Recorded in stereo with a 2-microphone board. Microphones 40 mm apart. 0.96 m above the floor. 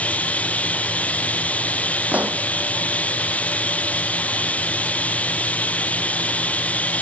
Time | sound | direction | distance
0.0 | running water | 35° left (ahead or behind) | ?
2.1 | a pop | 45° right (ahead or behind) | ?